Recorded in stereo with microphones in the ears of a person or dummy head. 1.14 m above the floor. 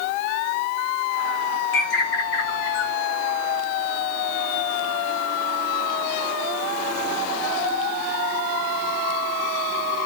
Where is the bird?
60° left (ahead or behind), 1.7 m.